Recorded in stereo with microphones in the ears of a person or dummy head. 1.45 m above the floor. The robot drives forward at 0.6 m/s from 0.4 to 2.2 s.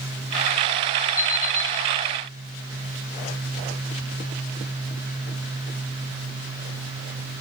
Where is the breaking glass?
I don't hear breaking glass.